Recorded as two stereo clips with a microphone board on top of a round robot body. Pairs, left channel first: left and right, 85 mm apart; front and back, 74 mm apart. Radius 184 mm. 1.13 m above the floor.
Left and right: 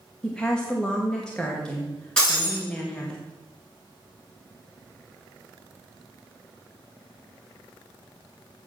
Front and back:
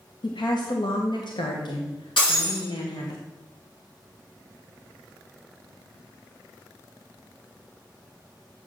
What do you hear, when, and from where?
0.2 s a woman speaking: 10° left, 1.5 m
2.2 s breaking glass: 15° left, 6.5 m